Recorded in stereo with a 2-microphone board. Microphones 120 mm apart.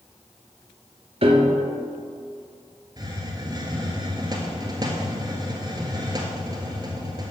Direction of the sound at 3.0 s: 35° right (ahead or behind).